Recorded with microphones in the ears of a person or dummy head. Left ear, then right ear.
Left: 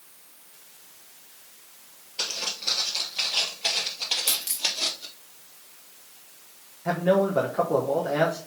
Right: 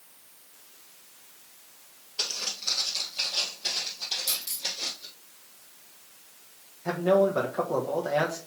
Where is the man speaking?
15° right (ahead or behind), 1.0 m.